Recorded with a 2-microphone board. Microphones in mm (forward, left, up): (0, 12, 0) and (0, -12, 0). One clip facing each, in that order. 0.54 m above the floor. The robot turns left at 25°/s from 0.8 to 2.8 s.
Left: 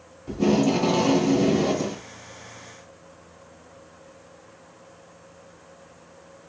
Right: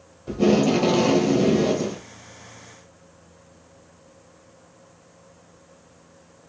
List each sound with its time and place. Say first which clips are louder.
0.3 s tape being pulled: right 2 dB; 155° right, 1.1 m; by 2.0 s 175° left, 1.1 m